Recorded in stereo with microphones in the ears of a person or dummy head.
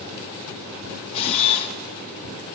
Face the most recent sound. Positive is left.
turn(degrees=30)  # may be behind; listen again after turning